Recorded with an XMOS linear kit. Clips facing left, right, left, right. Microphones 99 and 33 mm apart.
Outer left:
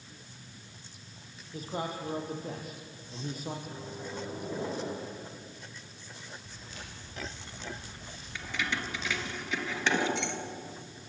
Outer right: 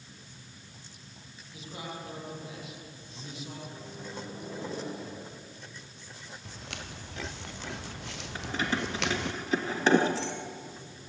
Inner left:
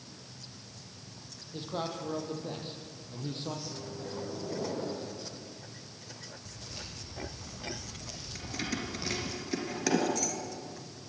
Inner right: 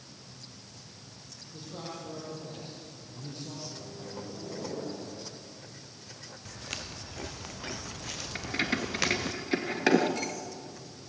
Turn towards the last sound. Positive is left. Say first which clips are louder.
# outer right 4 dB, inner right 6 dB
turn(degrees=-35)  # may be behind; listen again after turning